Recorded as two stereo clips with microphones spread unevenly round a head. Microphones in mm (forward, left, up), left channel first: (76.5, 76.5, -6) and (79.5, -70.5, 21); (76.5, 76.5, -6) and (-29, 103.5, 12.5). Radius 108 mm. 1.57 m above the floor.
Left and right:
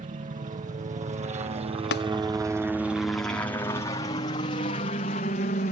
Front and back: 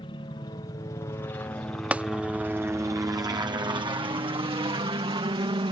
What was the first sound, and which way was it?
A helicopter, 65° right.